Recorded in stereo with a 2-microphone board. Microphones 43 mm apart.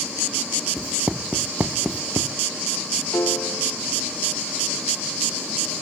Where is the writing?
30° right (ahead or behind).